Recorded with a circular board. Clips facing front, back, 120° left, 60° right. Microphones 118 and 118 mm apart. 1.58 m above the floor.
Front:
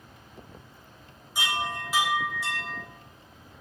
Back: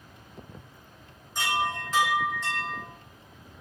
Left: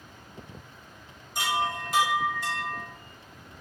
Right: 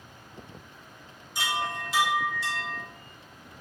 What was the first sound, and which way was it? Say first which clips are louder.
A chime: back 2 dB, left 3 dB; 80° left.